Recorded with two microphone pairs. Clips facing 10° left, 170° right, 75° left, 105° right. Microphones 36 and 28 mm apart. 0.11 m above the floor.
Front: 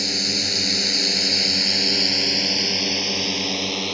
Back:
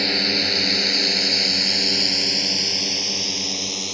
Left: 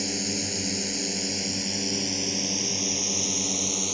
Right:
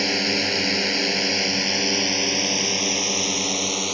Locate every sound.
0.0 s a drone: 120° right; by 3.9 s 55° right